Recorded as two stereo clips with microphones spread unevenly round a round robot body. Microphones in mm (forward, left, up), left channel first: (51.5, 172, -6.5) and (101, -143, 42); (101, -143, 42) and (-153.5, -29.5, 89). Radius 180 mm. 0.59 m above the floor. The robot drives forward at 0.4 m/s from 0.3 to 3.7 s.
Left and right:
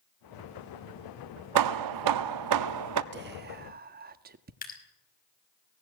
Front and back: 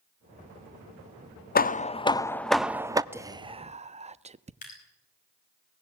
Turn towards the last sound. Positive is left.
turn(degrees=40)